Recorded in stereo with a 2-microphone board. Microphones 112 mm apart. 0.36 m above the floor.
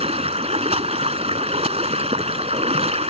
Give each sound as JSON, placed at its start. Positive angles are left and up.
{"t": 0.0, "sound": "running water", "side_deg": -70}